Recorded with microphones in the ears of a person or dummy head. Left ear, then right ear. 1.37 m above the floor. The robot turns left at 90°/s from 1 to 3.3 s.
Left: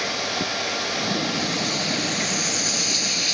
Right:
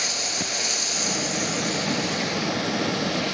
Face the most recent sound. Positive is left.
turn(degrees=55)